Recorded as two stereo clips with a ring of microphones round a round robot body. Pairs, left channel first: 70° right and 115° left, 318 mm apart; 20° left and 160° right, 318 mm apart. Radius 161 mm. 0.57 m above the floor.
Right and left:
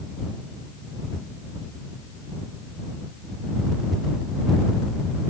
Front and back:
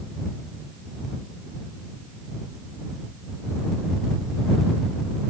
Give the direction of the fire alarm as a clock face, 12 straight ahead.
No fire alarm in this recording.